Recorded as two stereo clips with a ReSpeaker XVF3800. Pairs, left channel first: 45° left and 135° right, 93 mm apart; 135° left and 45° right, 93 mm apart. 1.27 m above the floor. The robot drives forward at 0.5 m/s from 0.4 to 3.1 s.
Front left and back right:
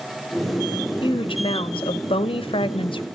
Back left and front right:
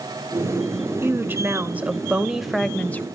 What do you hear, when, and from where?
1.0 s a woman speaking: 20° left, 1.3 m; by 3.0 s 70° left, 0.5 m